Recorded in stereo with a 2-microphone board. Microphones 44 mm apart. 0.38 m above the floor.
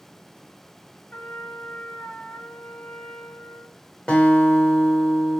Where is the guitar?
20° left (ahead or behind), 1.4 m.